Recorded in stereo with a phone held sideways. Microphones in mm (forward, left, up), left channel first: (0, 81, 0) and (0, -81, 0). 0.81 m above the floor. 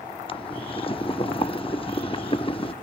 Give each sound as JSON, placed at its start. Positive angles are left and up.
{"t": 0.3, "sound": "boiling", "side_deg": 35, "distance_m": 0.6}